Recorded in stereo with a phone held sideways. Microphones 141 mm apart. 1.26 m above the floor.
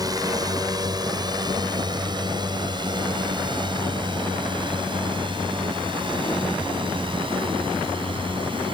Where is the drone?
25° right (ahead or behind); by 8.7 s 35° right (ahead or behind).